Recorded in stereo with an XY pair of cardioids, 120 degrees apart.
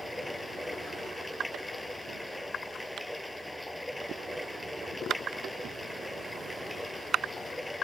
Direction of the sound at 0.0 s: 10° left.